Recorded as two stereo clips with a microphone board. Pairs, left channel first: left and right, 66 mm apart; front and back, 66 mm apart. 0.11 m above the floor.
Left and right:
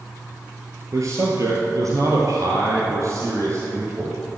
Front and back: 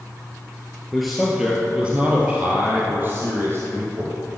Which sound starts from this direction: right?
A man speaking, at 0.9 s.